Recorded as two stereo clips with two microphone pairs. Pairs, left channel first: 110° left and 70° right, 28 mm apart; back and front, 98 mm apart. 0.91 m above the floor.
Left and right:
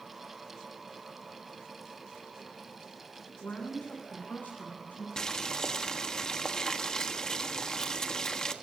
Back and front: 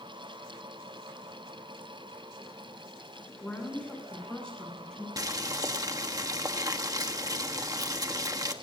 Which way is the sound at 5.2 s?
45° left.